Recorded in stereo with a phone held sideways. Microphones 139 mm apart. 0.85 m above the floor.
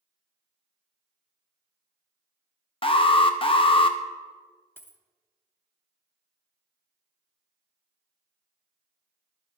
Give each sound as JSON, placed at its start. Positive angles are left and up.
{"t": 2.8, "sound": "an alarm", "side_deg": 40, "distance_m": 0.5}
{"t": 4.8, "sound": "a dropped coin", "side_deg": 15, "distance_m": 0.6}